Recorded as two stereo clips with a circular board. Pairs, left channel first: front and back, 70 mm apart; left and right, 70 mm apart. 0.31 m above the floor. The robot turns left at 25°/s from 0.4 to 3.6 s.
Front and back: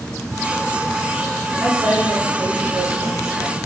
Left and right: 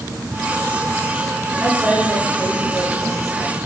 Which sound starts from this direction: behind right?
A woman speaking, at 1.6 s.